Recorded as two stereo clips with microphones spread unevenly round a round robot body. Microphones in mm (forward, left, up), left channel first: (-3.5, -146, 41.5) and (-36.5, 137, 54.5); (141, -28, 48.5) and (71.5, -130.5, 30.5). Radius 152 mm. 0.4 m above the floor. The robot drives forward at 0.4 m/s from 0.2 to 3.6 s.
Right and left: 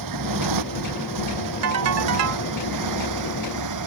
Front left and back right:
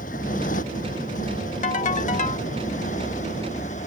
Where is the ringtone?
70° left; by 2.5 s 80° left.